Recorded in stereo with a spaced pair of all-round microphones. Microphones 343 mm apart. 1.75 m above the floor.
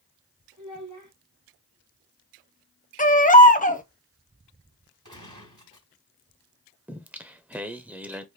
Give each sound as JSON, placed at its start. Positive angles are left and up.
{"t": 0.6, "sound": "a child speaking", "side_deg": -60, "distance_m": 2.0}
{"t": 3.0, "sound": "a baby crying", "side_deg": 25, "distance_m": 0.7}
{"t": 5.0, "sound": "a gunshot", "side_deg": -60, "distance_m": 3.5}
{"t": 6.9, "sound": "singing", "side_deg": -5, "distance_m": 0.7}